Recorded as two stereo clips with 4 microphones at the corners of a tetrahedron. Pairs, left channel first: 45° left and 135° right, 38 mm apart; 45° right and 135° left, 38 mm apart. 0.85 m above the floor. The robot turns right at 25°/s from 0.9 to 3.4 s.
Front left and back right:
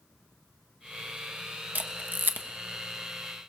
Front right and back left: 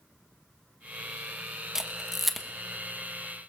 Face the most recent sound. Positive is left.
turn(degrees=-115)